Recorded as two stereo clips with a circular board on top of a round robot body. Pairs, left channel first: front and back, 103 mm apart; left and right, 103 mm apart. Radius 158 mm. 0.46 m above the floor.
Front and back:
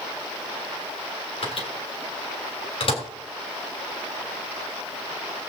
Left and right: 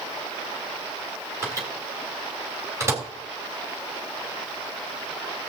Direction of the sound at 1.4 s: 25° right.